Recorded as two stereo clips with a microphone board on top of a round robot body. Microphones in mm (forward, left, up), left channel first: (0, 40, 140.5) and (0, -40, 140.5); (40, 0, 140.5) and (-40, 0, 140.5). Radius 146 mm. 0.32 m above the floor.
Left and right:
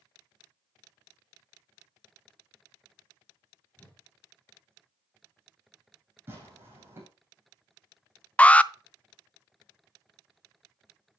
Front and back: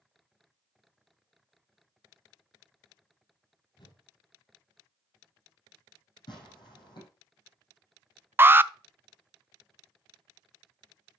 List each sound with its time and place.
3.8 s a whoosh: 20° left, 3.5 m
6.3 s tearing paper: 30° right, 6.5 m
8.4 s an alarm: 145° left, 0.7 m